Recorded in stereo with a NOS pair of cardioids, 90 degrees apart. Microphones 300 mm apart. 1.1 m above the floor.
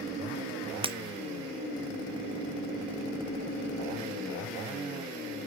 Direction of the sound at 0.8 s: 20° right.